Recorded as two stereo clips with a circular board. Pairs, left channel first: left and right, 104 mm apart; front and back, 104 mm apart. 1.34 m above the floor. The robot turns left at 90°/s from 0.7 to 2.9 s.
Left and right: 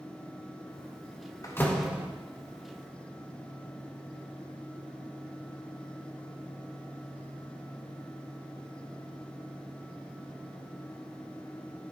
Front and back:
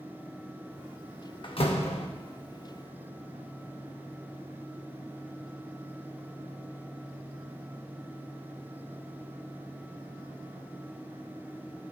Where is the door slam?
35° left, 1.2 m; by 2.1 s 25° right, 1.2 m.